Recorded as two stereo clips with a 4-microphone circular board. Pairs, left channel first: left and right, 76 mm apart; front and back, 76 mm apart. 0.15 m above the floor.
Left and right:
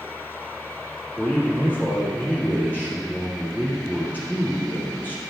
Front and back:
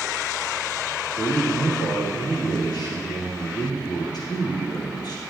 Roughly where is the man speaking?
Ahead left.